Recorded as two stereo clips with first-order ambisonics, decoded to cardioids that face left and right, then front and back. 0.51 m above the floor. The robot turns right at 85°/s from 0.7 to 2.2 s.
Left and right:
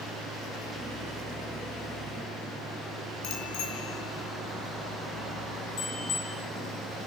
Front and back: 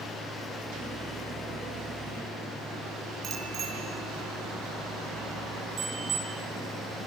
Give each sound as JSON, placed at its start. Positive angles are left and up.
{"t": 3.2, "sound": "a bicycle bell", "azimuth_deg": 115, "distance_m": 6.5}